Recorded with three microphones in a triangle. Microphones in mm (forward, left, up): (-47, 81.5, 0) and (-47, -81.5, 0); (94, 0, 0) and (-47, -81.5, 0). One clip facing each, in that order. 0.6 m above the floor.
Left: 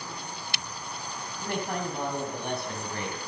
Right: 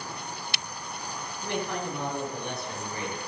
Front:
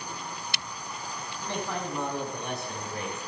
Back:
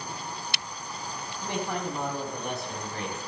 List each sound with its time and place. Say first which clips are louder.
1.4 s a man speaking: even, back 2 dB; 135° left, 4 m; by 3.2 s 115° left, 4.5 m